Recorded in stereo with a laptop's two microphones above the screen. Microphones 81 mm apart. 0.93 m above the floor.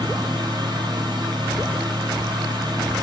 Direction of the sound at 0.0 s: 65° right (ahead or behind).